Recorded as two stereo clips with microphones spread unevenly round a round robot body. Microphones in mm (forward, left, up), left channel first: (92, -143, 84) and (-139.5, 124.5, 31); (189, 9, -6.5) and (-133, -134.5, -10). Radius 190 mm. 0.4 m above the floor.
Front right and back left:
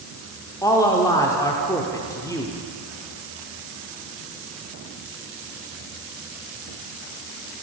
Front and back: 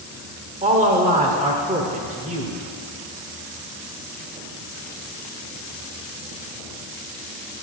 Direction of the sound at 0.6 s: 140° right.